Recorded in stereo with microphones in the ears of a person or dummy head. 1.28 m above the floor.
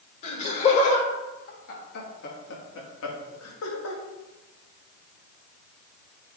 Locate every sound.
0.2 s laughter: 35° left (ahead or behind), 2.5 m; by 4.0 s 85° left, 2.0 m